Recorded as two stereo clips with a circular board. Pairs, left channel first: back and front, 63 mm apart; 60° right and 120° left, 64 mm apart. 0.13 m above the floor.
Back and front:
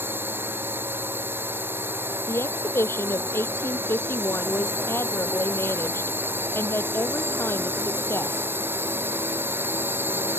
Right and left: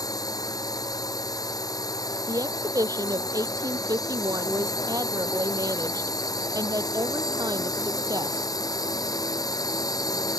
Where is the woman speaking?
135° left.